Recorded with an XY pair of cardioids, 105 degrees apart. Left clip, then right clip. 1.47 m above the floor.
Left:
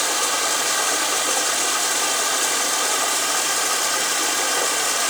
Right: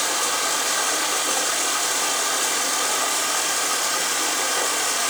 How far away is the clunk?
No clunk in this recording.